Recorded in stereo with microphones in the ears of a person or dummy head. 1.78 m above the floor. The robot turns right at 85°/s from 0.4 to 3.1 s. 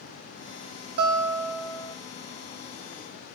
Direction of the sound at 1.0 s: 55° right.